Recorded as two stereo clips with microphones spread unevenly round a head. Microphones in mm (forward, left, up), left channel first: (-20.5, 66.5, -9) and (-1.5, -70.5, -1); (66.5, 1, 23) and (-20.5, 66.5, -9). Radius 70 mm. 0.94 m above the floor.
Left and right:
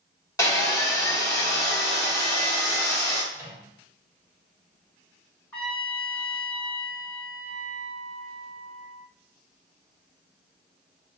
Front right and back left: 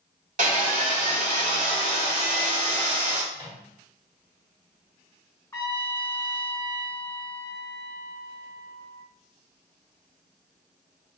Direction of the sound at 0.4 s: 165° left.